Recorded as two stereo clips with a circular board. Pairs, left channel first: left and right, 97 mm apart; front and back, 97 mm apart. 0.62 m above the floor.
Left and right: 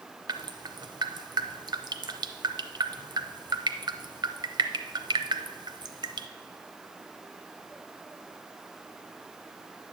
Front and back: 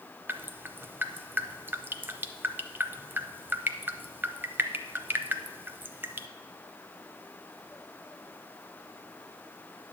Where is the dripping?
115° right, 0.5 m.